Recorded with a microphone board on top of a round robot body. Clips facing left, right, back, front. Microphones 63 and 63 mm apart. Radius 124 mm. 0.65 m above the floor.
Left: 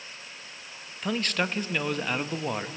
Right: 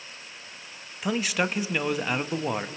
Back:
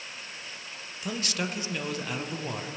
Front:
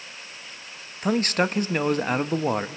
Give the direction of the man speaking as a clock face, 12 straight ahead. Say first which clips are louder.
Right 2 dB, front 10 dB; 12 o'clock.